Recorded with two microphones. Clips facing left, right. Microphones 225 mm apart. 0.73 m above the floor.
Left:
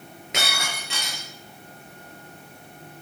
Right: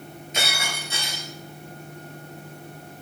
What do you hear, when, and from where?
0.3 s breaking glass: 70° left (ahead or behind), 7.5 m